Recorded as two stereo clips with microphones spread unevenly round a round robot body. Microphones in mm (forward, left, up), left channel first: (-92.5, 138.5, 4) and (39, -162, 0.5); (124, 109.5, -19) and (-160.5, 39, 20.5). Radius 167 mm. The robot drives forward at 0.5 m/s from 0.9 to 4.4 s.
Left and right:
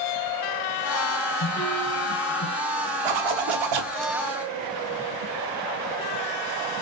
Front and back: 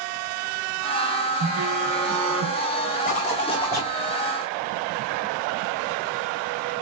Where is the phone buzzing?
155° left, 2 m; by 2.6 s 160° left, 2.5 m.